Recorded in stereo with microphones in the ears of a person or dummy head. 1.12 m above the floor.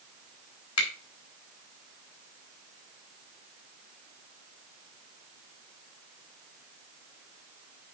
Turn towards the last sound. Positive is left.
turn(degrees=85)